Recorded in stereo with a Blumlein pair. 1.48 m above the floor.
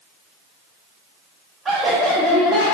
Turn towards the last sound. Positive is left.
turn(degrees=35)